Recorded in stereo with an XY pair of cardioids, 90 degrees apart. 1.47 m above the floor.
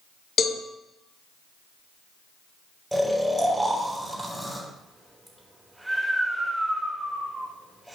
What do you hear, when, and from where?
0.4 s a cowbell: 60° left, 1.2 m
2.9 s snoring: 5° right, 3.5 m